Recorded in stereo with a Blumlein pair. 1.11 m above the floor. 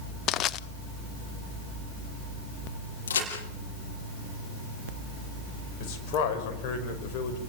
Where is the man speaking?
40° left, 5 m.